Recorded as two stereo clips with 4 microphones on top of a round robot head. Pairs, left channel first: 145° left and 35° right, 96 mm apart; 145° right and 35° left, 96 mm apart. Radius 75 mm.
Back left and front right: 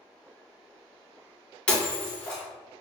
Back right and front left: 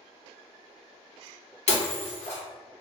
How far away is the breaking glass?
About 0.9 m.